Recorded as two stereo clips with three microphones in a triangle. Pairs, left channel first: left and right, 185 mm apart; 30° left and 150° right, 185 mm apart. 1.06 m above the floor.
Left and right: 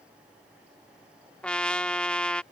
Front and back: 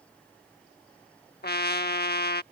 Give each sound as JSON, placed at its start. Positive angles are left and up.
{"t": 1.4, "sound": "a trumpet", "azimuth_deg": 5}